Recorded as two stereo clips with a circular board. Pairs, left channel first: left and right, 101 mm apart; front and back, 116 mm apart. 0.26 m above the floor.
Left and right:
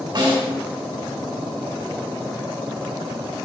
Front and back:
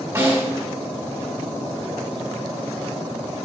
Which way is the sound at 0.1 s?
115° right.